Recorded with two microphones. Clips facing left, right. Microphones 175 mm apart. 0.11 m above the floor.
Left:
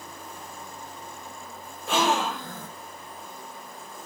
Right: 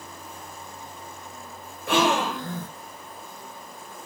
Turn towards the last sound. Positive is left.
turn(degrees=-65)  # may be behind; listen again after turning